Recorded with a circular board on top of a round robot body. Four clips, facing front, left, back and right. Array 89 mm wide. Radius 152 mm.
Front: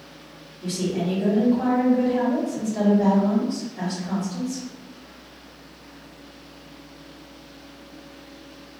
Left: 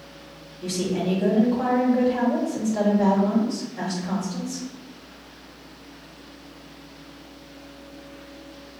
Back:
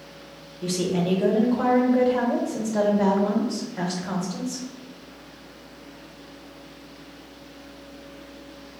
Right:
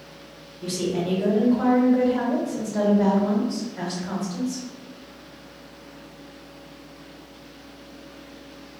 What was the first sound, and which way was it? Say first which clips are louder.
A woman speaking: even, back 1 dB; 165° right.